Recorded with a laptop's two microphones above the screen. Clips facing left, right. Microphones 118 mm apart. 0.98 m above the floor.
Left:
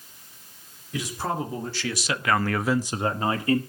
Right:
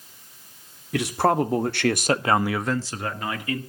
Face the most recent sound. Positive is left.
turn(degrees=40)  # may be behind; listen again after turning